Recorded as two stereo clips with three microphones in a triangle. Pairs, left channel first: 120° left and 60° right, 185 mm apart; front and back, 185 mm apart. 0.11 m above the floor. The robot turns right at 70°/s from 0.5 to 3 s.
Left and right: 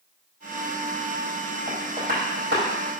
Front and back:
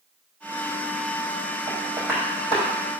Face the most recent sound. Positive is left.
turn(degrees=-30)